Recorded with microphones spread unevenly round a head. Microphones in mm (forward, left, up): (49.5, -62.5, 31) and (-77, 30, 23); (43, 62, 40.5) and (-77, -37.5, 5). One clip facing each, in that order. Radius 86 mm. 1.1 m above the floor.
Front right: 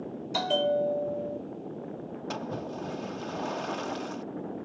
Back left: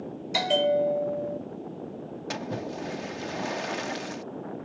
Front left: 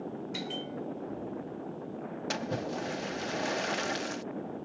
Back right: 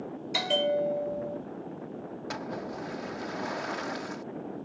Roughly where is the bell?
Behind right.